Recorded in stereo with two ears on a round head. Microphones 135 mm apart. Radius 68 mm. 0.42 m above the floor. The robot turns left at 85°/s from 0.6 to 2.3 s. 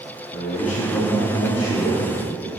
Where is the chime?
No chime in this recording.